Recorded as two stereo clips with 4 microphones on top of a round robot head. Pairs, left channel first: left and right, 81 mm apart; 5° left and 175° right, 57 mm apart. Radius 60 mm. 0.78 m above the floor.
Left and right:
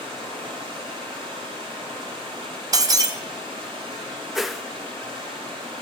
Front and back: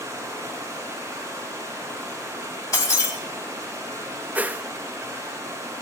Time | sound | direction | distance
0.0 | running water | 115° right | 7.5 m
2.7 | breaking glass | 50° right | 1.9 m
4.3 | a whoosh | 175° right | 0.7 m